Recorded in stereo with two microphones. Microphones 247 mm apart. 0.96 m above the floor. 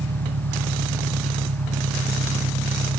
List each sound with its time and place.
0.0 s an engine running: 70° right (ahead or behind)